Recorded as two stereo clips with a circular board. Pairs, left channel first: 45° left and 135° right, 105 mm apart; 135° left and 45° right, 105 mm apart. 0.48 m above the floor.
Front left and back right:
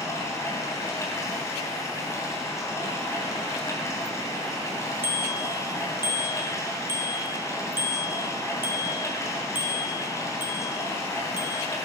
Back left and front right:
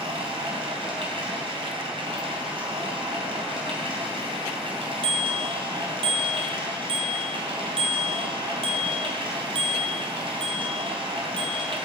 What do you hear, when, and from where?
0.0 s running water: 15° right, 3 m
5.0 s a bicycle bell: 65° right, 2 m